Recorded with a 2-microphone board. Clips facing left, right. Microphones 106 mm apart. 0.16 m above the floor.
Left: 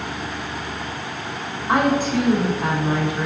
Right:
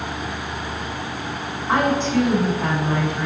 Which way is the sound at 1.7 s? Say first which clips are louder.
Left 1 dB; 10° left (ahead or behind).